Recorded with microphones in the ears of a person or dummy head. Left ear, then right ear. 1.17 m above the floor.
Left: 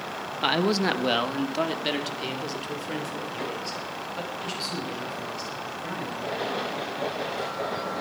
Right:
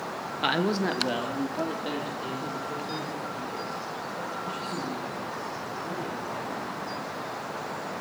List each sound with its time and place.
0.4 s a man speaking: centre (ahead or behind), 0.9 m; by 6.7 s 75° left (ahead or behind), 8.5 m